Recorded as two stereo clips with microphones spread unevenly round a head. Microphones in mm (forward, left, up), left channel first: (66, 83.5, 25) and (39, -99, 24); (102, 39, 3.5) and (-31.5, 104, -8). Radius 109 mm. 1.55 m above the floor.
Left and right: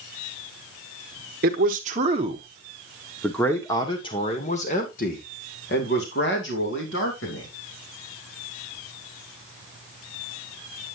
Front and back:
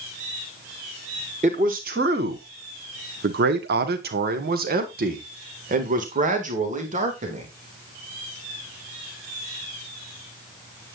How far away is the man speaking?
About 1.5 m.